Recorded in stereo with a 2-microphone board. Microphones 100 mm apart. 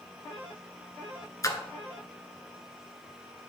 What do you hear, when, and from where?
1.4 s a splash: 35° left (ahead or behind), 0.7 m